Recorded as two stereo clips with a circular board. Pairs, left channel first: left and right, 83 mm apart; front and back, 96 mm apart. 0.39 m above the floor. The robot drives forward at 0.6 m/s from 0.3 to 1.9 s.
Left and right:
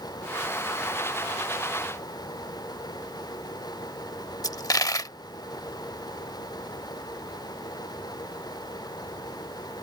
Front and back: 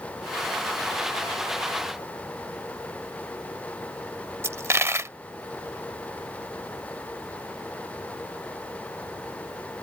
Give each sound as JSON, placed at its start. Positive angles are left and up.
{"t": 4.4, "sound": "a dropped coin", "azimuth_deg": 120}